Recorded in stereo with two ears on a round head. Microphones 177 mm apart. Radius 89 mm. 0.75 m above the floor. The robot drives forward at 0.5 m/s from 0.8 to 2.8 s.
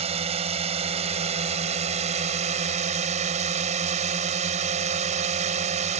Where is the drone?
30° right (ahead or behind); by 6.0 s 35° right (ahead or behind).